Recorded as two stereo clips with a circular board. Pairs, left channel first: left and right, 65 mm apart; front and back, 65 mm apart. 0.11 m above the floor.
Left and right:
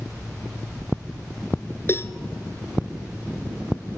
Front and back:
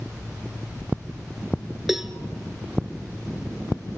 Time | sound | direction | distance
1.9 | a cowbell | 95° left | 1.1 m